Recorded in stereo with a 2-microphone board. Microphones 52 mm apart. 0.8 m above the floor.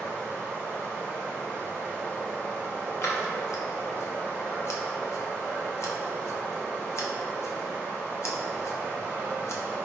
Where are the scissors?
60° left (ahead or behind), 0.5 m.